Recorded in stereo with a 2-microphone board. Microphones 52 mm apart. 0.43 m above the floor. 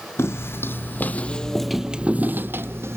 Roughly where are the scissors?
I don't hear scissors.